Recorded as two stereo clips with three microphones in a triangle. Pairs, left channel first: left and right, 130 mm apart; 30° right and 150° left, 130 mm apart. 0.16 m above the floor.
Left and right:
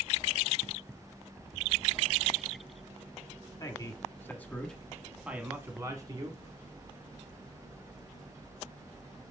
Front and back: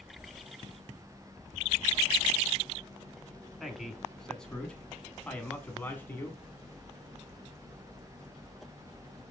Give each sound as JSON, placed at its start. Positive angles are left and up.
{"t": 3.6, "sound": "a man speaking", "azimuth_deg": 60, "distance_m": 1.6}